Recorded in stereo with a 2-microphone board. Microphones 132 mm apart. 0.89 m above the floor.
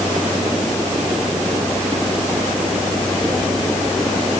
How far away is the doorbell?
No doorbell in this recording.